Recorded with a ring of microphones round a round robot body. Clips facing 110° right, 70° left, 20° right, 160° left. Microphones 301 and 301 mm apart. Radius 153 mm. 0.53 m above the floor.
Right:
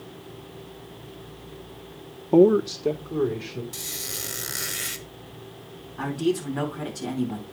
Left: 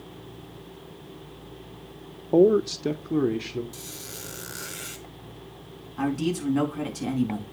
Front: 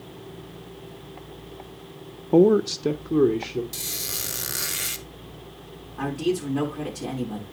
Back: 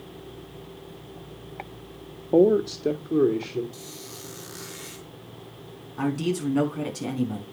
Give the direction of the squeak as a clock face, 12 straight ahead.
1 o'clock.